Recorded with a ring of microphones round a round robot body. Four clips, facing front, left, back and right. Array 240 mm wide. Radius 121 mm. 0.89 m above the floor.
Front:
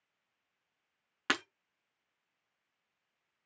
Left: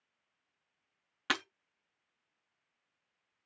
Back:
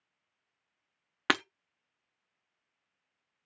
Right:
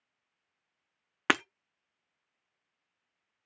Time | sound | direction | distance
1.3 | breaking glass | 120° right | 0.6 m